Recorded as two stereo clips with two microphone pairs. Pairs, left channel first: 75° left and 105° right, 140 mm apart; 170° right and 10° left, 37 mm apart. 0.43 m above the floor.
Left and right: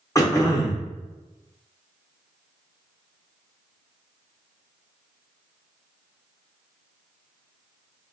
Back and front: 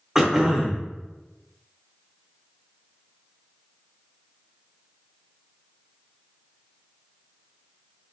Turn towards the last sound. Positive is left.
turn(degrees=80)